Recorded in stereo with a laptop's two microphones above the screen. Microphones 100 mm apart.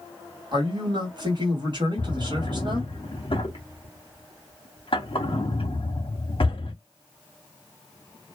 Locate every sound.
0.5 s a man speaking: 50° right (ahead or behind), 1.6 m
2.0 s a drawer: 60° left (ahead or behind), 0.8 m